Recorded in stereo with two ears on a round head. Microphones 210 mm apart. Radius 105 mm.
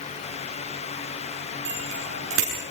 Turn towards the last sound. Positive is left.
turn(degrees=-60)  # may be behind; listen again after turning